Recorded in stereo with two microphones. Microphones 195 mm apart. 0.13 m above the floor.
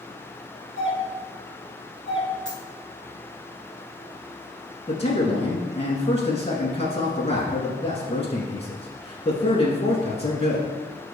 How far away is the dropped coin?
About 2 m.